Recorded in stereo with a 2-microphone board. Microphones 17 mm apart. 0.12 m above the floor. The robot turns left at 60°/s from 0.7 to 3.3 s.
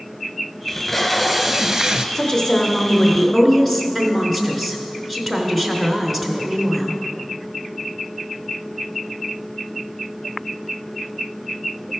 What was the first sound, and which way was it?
Tape being pulled, 20° left.